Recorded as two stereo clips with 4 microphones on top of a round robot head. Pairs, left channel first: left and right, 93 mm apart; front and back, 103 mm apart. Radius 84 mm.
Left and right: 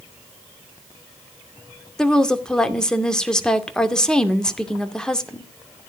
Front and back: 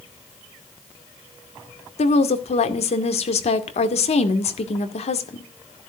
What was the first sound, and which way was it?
A woman speaking, 10° left.